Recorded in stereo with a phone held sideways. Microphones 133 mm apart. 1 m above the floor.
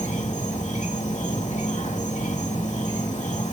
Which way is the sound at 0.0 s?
70° left (ahead or behind).